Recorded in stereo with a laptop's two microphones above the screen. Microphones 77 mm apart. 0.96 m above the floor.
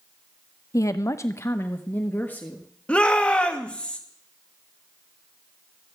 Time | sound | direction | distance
0.7 | a woman speaking | 45° left (ahead or behind) | 0.5 m
2.9 | a shout | 15° left (ahead or behind) | 1.4 m